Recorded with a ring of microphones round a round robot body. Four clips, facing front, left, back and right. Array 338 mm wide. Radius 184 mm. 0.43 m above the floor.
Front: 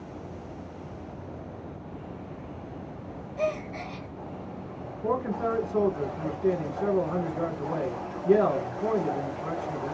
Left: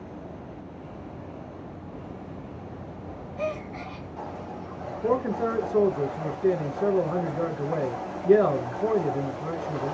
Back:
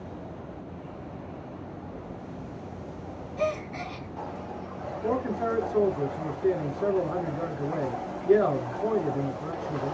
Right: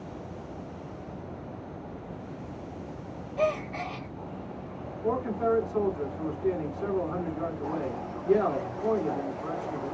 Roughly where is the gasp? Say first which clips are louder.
Right 4 dB, even; right.